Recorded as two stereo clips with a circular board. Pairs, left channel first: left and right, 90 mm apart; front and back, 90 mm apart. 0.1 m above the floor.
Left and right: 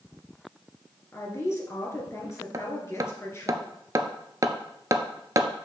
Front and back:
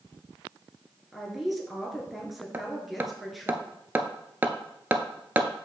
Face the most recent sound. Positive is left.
turn(degrees=-120)